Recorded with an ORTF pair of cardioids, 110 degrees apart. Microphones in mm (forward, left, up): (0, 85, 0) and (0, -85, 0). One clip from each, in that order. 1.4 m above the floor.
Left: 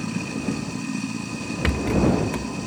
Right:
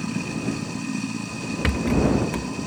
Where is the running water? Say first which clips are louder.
Even; straight ahead.